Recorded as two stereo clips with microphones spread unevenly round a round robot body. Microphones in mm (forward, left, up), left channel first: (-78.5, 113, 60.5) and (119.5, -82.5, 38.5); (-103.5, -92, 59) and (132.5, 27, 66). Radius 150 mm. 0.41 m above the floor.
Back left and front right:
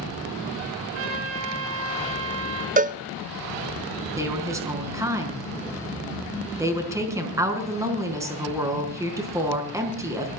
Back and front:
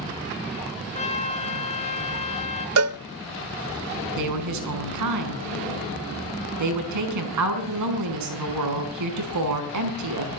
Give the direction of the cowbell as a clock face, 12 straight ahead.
12 o'clock.